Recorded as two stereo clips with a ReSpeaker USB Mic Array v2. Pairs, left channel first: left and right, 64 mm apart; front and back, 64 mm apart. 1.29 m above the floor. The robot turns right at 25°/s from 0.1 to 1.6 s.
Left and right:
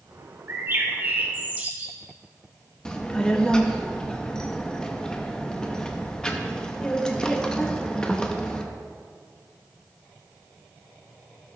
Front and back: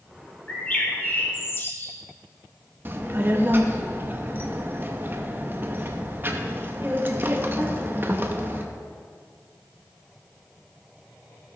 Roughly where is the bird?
Ahead right.